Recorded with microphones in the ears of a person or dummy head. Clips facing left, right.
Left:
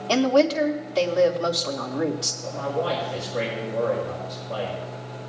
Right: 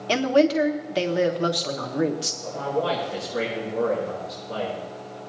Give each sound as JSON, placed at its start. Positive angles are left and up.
{"t": 0.1, "sound": "a woman speaking", "side_deg": -25, "distance_m": 1.1}
{"t": 2.4, "sound": "a man speaking", "side_deg": -45, "distance_m": 5.0}